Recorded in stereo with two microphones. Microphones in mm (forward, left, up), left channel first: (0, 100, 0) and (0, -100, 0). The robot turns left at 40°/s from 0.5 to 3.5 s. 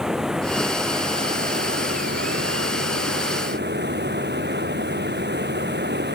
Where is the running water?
5° right; by 6.2 s 125° right.